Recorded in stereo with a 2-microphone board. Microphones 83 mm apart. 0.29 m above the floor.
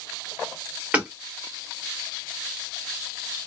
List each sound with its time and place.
0.9 s hammering: 15° right (ahead or behind), 1.2 m